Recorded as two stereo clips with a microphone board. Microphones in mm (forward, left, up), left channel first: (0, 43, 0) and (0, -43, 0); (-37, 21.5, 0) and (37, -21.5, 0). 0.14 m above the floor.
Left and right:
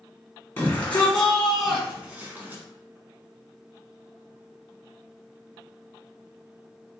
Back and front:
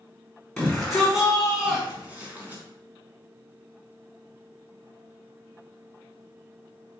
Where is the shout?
75° left, 1.3 m; by 2.6 s 70° right, 1.3 m.